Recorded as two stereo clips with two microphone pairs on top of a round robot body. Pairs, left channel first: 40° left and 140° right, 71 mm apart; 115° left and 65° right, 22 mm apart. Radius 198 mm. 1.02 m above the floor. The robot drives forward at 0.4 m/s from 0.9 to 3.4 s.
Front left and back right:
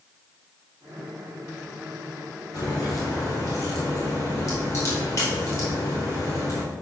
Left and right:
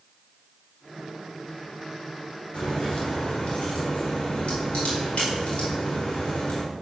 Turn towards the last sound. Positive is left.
turn(degrees=90)